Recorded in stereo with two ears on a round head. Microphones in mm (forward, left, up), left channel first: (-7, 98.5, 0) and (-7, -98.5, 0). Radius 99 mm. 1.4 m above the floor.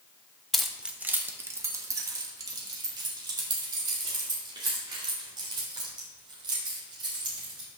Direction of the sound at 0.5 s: Centre (ahead or behind).